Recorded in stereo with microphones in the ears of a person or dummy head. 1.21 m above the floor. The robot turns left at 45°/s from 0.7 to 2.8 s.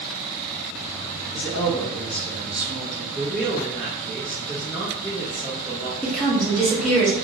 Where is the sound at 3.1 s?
Centre (ahead or behind), 0.5 m.